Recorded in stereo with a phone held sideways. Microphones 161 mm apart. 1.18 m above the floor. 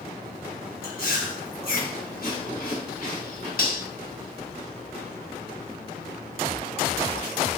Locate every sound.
0.8 s chewing: 65° left (ahead or behind), 1.2 m
3.6 s cutlery clinking: 65° left (ahead or behind), 1.2 m